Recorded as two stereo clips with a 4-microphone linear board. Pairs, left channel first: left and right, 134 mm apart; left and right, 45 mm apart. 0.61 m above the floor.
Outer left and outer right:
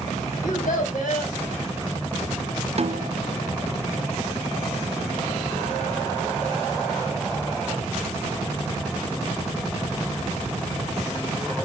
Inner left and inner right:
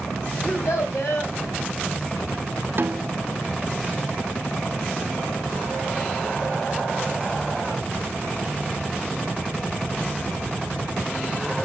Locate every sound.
0.4 s a child speaking: 80° left, 3 m
2.8 s a snare drum: 55° right (ahead or behind), 0.5 m